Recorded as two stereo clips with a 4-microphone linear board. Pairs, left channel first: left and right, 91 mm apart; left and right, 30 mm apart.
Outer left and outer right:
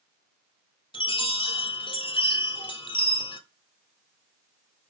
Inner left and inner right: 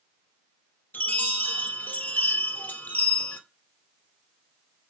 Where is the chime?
60° left (ahead or behind), 1.9 m.